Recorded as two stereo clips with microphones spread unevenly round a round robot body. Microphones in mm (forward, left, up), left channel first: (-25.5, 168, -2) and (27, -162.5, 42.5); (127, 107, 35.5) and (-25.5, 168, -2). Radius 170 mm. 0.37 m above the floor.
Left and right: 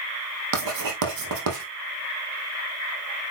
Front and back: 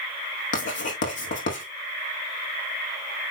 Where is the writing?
40° right, 2.5 m.